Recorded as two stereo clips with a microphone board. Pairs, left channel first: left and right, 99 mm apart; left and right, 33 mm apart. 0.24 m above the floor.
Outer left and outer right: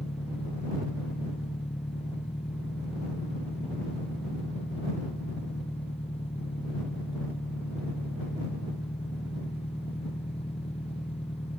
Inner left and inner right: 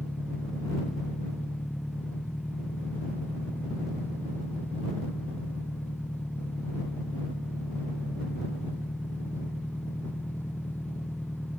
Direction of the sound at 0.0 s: 85° left.